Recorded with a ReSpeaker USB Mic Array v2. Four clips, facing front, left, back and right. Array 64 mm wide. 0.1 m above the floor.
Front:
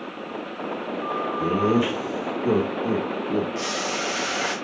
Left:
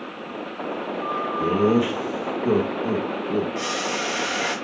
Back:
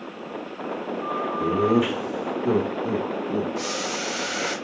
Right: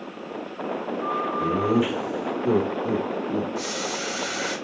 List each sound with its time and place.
1.4 s laughter: 60° left, 3 m; by 3.5 s 45° left, 4 m
3.5 s boiling: 55° left, 3.5 m